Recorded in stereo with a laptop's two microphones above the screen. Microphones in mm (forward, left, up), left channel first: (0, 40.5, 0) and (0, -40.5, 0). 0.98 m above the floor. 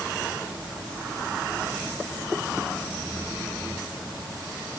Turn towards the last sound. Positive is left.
No sound to turn to.